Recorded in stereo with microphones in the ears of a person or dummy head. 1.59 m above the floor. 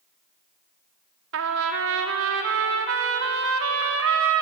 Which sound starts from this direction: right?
A trumpet, at 1.3 s.